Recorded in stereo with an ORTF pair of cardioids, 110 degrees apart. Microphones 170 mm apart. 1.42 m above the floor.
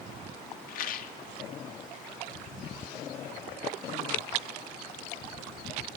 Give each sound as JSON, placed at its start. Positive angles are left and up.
{"t": 0.7, "sound": "a rattle", "azimuth_deg": 55, "distance_m": 0.7}